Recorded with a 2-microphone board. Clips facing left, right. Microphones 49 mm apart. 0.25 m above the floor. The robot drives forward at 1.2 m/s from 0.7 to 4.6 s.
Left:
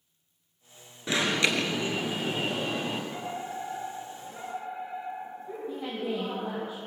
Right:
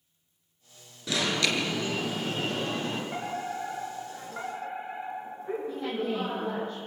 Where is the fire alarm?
45° right (ahead or behind), 7.5 m; by 6.7 s 55° right (ahead or behind), 6.5 m.